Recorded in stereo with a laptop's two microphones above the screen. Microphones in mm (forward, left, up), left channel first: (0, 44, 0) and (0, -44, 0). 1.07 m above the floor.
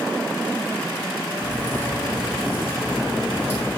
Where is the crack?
25° left (ahead or behind), 6 m.